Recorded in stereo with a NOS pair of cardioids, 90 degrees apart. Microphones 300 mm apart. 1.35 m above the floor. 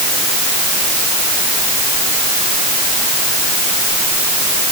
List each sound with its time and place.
Only background noise.